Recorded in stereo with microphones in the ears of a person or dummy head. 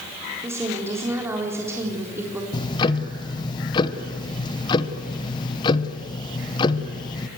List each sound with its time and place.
0.4 s a woman speaking: 10° right (ahead or behind), 3.5 m
2.5 s ticking: 25° left (ahead or behind), 1.1 m